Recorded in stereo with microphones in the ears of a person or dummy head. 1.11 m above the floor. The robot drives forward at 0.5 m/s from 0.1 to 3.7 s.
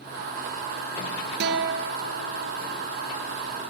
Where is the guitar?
55° right (ahead or behind), 1.2 m; by 2.5 s 80° right, 1.0 m.